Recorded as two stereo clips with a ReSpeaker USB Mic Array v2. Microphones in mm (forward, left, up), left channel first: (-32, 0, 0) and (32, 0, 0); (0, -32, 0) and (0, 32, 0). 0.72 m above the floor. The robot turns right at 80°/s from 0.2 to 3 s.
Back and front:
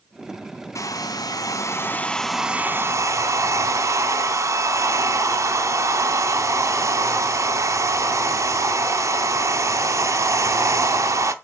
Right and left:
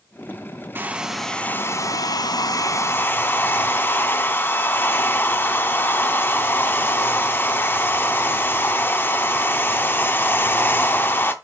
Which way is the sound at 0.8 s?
145° left.